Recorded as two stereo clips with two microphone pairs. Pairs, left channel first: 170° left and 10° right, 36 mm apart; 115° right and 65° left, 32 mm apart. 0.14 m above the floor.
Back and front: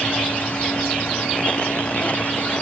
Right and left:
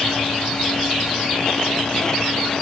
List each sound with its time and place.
Only background noise.